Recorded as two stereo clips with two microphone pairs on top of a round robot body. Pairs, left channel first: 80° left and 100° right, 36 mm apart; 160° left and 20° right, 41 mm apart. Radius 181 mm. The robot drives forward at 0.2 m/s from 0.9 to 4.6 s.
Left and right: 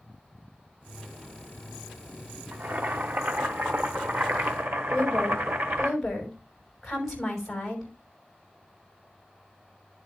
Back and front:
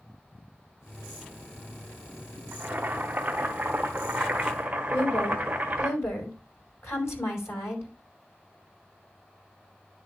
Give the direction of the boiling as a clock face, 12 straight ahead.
2 o'clock.